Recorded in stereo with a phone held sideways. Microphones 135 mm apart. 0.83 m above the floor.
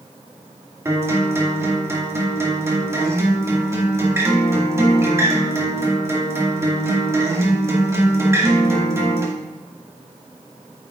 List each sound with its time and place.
0.8 s a guitar: 20° right (ahead or behind), 2 m